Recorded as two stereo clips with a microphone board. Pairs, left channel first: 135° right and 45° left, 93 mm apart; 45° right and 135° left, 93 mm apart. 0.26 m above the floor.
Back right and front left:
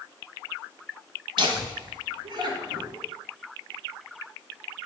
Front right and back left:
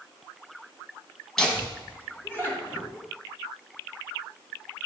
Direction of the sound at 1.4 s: 40° left.